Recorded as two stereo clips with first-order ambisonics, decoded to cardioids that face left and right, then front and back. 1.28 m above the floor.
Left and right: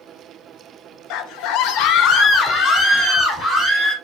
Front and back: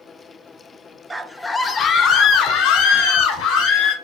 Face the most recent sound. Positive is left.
turn(degrees=10)